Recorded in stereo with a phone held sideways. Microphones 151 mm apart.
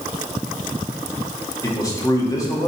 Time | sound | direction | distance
1.6 | a man speaking | 20° left (ahead or behind) | 1.7 m